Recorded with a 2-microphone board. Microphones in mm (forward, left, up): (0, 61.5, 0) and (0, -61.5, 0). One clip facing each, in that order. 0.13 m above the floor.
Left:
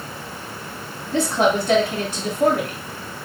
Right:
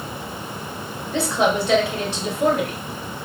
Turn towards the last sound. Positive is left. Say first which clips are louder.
# left 1 dB
turn(degrees=45)  # may be behind; listen again after turning